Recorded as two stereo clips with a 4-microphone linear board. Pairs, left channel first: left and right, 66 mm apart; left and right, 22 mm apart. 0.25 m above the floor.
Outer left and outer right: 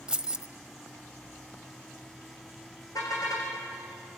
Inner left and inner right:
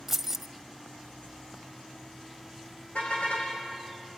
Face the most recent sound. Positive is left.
turn(degrees=65)  # may be behind; listen again after turning